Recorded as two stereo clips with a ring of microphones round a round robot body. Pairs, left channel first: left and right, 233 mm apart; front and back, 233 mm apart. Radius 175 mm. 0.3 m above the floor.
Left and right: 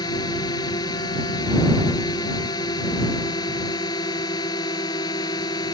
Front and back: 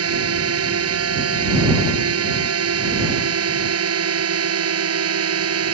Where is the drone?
170° left.